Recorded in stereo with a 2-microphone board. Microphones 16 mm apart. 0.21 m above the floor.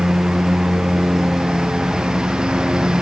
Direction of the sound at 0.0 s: 60° right (ahead or behind).